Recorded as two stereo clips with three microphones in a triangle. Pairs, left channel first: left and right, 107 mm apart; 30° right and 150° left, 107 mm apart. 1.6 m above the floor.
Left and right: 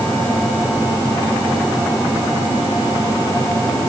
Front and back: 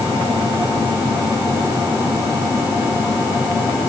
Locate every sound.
Only background noise.